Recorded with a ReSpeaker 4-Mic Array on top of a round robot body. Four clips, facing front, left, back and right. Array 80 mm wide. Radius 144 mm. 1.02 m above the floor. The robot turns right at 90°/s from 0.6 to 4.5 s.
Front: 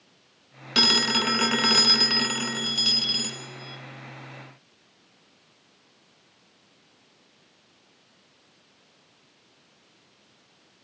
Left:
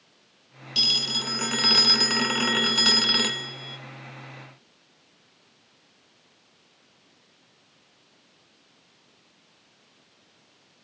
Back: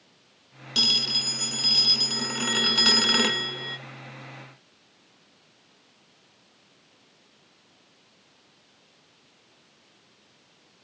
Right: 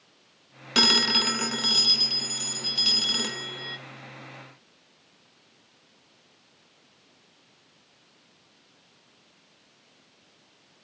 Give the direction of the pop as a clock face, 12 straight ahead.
No pop in this recording.